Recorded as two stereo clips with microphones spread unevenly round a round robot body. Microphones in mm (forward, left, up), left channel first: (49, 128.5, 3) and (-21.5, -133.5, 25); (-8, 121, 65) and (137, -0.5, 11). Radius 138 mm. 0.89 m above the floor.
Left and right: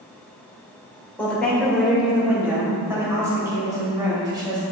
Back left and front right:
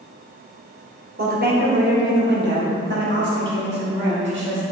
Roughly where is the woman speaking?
Ahead.